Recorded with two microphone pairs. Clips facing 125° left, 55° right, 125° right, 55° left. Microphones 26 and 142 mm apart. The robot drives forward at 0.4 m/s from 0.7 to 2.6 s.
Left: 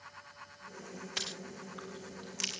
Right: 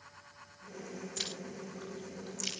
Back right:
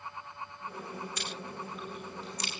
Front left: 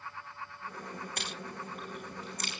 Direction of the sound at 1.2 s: 85° left.